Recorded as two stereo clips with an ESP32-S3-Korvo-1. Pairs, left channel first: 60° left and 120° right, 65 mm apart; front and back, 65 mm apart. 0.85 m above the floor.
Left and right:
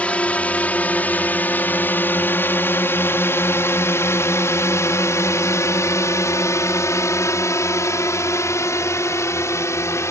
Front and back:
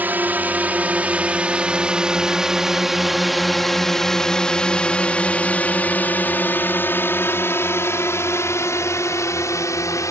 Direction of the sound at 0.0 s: 125° left.